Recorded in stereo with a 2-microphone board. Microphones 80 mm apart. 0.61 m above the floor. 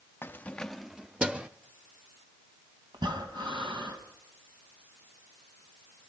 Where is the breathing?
70° right (ahead or behind), 3 m.